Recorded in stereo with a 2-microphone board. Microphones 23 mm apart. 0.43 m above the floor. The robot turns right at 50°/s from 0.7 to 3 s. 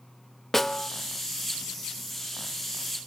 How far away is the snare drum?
About 0.7 m.